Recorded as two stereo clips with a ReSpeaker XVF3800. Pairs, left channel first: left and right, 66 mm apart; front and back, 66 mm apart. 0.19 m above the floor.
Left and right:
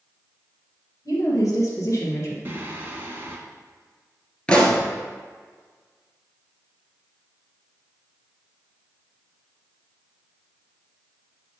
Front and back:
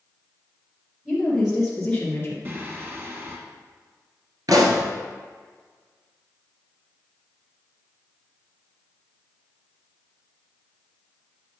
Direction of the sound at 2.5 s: 135° right.